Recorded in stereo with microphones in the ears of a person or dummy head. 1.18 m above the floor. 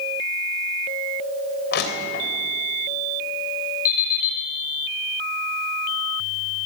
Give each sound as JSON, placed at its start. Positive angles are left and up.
{"t": 1.7, "sound": "crushing", "side_deg": 60, "distance_m": 3.5}
{"t": 3.9, "sound": "an alarm clock", "side_deg": 50, "distance_m": 4.5}